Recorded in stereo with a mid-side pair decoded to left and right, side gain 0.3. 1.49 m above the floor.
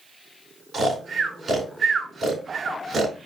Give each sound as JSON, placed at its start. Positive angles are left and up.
{"t": 0.7, "sound": "snoring", "azimuth_deg": -65, "distance_m": 3.5}